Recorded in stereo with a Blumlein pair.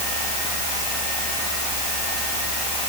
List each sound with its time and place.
Only background noise.